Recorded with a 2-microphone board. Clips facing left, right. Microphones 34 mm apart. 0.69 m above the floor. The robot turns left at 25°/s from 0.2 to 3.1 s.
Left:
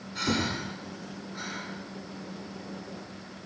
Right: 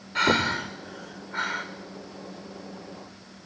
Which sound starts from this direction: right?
Breathing, at 0.1 s.